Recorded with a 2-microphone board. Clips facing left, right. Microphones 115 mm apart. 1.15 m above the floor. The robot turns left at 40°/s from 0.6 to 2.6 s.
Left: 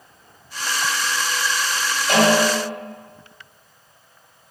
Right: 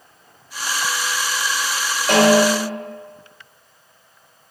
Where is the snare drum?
65° right (ahead or behind), 1.2 m; by 2.8 s 80° right, 1.2 m.